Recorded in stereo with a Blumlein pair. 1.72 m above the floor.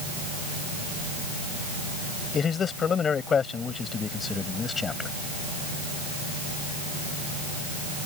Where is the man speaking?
20° left; by 5.1 s 15° left.